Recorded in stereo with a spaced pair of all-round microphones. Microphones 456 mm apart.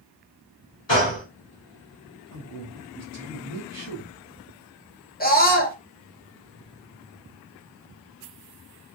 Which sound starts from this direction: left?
A gunshot, at 0.9 s.